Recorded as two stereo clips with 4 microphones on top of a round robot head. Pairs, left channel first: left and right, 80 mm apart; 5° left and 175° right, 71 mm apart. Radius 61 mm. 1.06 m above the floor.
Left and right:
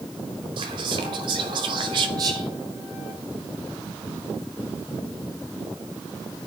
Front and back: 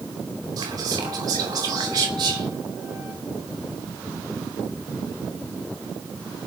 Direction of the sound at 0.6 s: 125° right.